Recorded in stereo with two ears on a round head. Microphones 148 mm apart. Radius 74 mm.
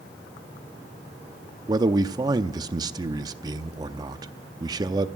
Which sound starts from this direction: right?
A man speaking, at 1.7 s.